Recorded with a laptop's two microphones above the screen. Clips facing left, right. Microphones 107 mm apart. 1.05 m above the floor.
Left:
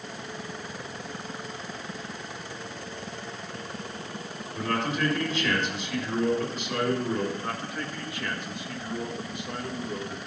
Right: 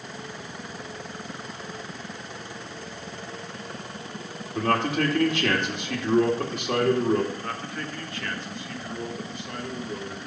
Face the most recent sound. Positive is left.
turn(degrees=15)  # may be behind; listen again after turning